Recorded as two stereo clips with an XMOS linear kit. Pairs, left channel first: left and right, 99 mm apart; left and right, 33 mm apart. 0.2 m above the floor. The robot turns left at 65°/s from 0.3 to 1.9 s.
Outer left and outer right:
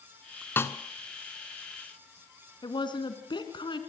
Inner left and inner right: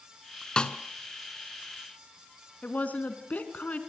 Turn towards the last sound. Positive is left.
turn(degrees=50)  # may be behind; listen again after turning